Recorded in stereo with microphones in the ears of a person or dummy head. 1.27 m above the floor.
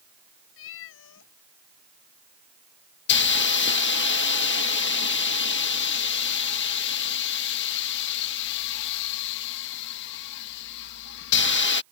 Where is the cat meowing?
70° left (ahead or behind).